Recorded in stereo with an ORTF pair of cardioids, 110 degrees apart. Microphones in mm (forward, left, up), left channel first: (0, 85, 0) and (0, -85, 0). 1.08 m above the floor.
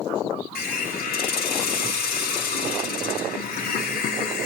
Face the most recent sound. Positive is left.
turn(degrees=65)